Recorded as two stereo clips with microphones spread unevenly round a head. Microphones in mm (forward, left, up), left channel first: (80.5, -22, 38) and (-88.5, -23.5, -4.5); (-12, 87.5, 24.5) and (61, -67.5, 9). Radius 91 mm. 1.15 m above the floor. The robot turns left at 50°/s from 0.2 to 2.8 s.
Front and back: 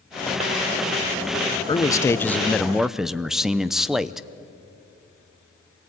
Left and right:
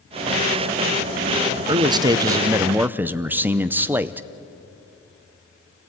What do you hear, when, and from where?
1.7 s a man speaking: 65° right, 0.6 m; by 4.3 s 120° right, 0.6 m